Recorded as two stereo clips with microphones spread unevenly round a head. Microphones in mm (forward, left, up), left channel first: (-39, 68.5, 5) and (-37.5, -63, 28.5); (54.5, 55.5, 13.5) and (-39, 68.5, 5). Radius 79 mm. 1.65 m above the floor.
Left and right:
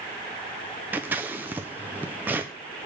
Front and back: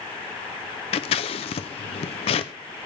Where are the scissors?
15° right, 0.7 m.